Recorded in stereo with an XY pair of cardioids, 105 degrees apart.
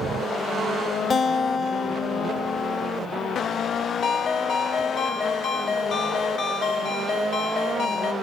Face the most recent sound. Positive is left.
turn(degrees=65)